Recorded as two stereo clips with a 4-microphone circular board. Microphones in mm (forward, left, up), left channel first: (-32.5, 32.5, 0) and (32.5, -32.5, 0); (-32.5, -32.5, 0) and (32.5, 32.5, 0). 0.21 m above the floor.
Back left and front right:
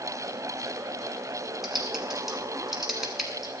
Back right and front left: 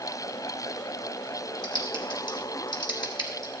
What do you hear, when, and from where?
1.6 s typing on a keyboard: 130° right, 1.5 m